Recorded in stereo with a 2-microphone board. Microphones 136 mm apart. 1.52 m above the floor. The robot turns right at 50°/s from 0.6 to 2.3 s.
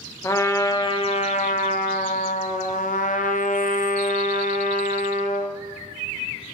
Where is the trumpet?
25° left, 0.6 m; by 5.6 s 110° left, 0.6 m.